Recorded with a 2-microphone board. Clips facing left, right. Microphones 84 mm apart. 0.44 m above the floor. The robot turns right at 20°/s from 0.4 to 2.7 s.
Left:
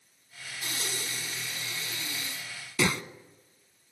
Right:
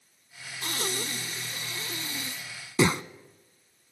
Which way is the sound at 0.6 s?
60° right (ahead or behind).